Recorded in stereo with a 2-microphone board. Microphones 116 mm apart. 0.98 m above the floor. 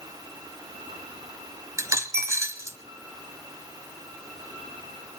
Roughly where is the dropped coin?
Right.